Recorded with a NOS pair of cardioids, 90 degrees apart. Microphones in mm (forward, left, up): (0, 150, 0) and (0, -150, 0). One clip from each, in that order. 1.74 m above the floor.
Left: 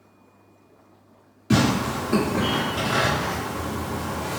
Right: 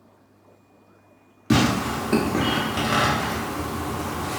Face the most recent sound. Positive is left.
turn(degrees=-30)